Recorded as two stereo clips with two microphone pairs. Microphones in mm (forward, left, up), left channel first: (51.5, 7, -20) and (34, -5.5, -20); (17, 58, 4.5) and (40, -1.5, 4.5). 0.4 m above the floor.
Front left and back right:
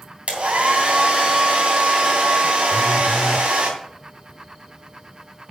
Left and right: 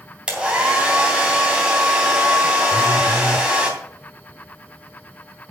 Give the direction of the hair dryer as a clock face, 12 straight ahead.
5 o'clock.